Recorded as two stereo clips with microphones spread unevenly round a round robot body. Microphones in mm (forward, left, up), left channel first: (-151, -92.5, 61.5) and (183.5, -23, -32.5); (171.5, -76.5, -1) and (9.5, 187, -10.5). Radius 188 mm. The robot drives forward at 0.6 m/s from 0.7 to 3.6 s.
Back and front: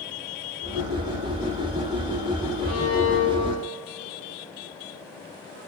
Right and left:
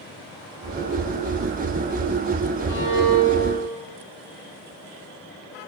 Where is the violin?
140° right, 5 m; by 3.8 s 145° right, 5.5 m.